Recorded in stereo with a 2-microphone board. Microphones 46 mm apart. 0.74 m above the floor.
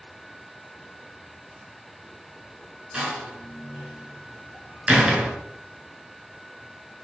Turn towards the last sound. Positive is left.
turn(degrees=-25)  # may be behind; listen again after turning